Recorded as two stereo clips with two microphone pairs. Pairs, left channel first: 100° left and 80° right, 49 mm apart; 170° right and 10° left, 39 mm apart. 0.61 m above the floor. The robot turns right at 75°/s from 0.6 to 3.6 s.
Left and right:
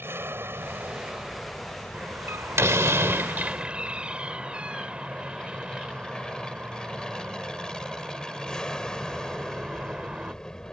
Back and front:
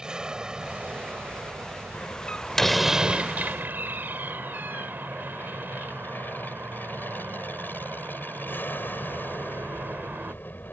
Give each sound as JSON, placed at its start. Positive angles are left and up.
{"t": 0.0, "sound": "an aircraft", "azimuth_deg": -55}
{"t": 1.9, "sound": "a door slam", "azimuth_deg": -140}